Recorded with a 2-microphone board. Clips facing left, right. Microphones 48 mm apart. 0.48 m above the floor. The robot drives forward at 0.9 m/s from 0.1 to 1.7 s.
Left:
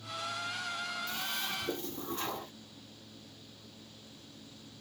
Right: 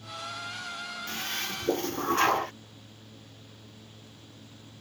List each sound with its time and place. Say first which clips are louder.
1.1 s a toilet flushing: right 3 dB; 60° right (ahead or behind); by 2.5 s 65° right (ahead or behind)